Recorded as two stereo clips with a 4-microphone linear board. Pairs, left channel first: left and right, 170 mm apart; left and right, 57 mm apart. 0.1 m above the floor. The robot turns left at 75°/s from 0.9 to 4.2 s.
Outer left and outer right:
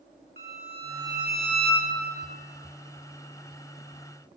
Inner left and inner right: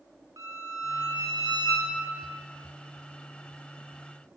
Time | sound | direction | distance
0.4 | a violin | 105° right | 1.3 m